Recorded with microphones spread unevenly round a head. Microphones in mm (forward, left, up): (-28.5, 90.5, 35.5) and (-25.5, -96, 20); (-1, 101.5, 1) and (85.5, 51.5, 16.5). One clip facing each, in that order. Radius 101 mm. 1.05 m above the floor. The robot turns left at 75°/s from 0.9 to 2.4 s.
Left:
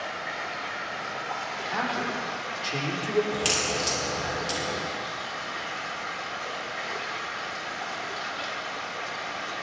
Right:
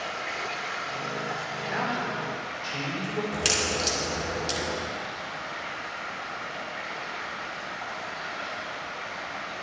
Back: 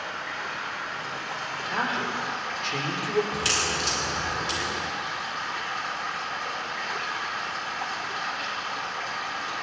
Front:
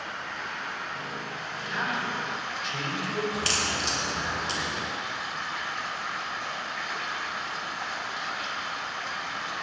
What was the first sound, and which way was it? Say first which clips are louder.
Running water: right 1 dB, back 2 dB; 125° right.